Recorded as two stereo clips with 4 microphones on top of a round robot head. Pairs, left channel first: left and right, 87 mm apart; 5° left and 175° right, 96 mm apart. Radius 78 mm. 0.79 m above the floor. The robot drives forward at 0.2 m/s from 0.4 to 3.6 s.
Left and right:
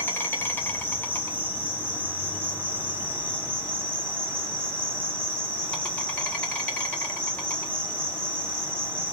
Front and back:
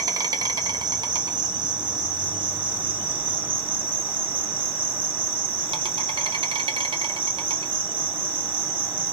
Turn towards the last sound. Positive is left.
turn(degrees=165)